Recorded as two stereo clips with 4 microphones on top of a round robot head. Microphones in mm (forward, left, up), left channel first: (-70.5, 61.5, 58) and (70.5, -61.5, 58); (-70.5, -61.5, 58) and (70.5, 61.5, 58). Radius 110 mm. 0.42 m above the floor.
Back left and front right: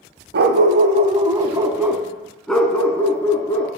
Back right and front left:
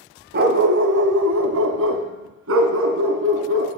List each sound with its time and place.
0.3 s a dog barking: 5° right, 0.9 m; by 3.7 s 65° left, 1.9 m